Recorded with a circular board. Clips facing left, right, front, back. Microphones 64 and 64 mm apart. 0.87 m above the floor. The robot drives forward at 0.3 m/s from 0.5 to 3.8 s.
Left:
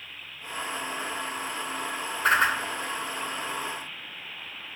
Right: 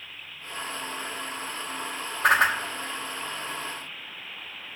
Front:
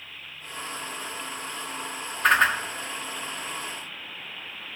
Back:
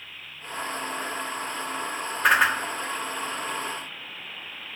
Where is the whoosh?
95° right, 1.3 m; by 2.6 s 100° right, 1.3 m.